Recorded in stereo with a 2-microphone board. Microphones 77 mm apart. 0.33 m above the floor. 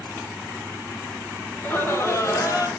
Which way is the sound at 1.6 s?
20° left (ahead or behind).